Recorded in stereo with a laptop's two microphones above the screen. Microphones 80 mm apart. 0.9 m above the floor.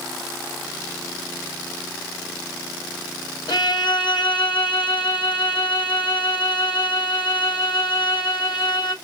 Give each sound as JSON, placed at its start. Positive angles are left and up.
{"t": 3.5, "sound": "a violin", "side_deg": 70, "distance_m": 1.3}